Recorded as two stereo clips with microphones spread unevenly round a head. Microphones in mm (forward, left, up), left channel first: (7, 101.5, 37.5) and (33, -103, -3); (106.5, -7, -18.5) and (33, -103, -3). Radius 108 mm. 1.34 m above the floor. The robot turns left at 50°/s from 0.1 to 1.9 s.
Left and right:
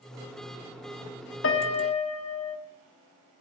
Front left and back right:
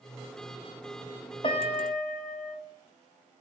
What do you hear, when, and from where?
1.4 s a piano: 120° left, 1.0 m; by 2.6 s 95° left, 1.0 m